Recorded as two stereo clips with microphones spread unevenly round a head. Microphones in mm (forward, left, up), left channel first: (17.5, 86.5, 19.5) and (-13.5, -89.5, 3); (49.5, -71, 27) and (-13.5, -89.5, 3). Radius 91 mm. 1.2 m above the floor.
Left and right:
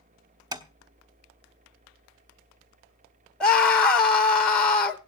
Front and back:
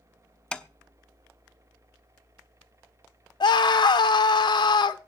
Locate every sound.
0.5 s tapping: 30° right, 0.9 m
3.4 s a scream: 10° right, 0.8 m